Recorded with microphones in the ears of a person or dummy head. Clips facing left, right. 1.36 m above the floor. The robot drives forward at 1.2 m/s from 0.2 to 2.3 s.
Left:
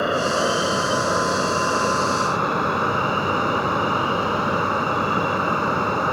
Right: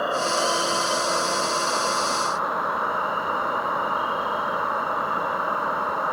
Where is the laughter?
I don't hear laughter.